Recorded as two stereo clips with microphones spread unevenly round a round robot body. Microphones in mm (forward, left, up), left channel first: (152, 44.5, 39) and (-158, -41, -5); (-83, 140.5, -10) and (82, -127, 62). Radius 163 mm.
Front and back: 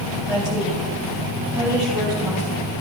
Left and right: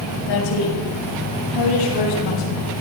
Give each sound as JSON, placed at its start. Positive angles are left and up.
{"t": 0.3, "sound": "a woman speaking", "azimuth_deg": 115, "distance_m": 8.0}